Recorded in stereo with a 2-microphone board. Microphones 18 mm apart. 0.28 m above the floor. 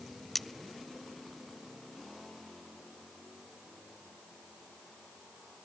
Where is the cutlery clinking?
15° left (ahead or behind), 0.6 m.